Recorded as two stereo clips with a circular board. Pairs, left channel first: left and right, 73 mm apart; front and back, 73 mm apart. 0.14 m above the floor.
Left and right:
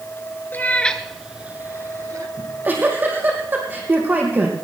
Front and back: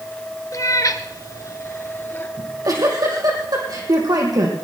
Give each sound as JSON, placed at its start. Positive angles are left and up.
{"t": 0.5, "sound": "a cat meowing", "azimuth_deg": 30, "distance_m": 1.1}
{"t": 2.4, "sound": "a giggle", "azimuth_deg": -155, "distance_m": 3.5}